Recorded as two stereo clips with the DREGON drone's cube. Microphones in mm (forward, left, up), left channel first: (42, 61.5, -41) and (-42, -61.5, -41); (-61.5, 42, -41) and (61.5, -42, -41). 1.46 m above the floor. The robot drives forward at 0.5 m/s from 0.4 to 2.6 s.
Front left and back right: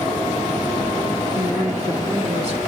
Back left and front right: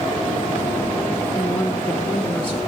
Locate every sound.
1.4 s a woman speaking: 160° right, 2 m; by 2.6 s 165° right, 2.5 m